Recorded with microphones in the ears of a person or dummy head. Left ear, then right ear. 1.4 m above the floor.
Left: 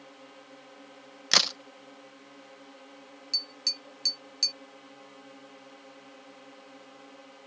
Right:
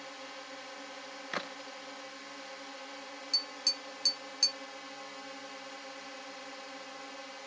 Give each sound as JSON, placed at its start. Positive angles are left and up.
{"t": 0.0, "sound": "a drone", "side_deg": -65}
{"t": 1.3, "sound": "a crack", "side_deg": 90}
{"t": 3.3, "sound": "tapping", "side_deg": -5}